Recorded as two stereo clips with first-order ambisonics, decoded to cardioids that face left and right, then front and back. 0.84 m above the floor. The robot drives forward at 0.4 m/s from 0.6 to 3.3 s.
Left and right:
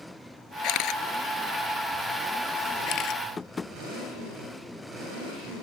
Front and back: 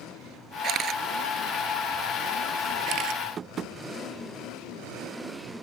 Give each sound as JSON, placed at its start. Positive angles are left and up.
{"t": 0.6, "sound": "a camera shutter", "azimuth_deg": 125}
{"t": 3.4, "sound": "tapping", "azimuth_deg": 150}